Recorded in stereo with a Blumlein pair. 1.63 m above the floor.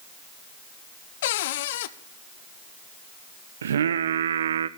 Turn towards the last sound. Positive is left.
turn(degrees=-65)